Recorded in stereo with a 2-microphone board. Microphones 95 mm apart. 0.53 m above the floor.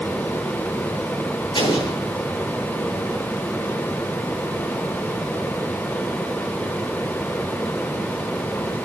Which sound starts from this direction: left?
An explosion, at 1.6 s.